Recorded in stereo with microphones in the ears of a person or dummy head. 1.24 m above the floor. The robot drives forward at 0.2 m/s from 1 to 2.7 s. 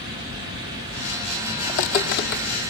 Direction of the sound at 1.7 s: 45° left (ahead or behind).